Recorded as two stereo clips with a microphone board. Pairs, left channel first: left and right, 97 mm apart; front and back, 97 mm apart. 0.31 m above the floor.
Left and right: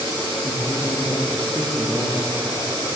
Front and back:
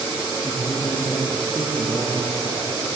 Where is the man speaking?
55° left, 2 m; by 3.0 s 65° left, 4.5 m.